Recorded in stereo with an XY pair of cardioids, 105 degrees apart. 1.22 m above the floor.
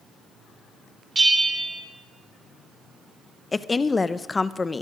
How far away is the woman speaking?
About 0.7 m.